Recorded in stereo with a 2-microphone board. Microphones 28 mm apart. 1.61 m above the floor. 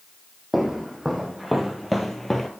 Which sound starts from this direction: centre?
Footsteps, at 0.5 s.